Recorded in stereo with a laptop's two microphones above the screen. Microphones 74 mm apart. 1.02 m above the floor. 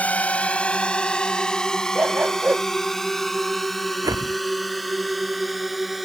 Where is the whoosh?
55° right (ahead or behind).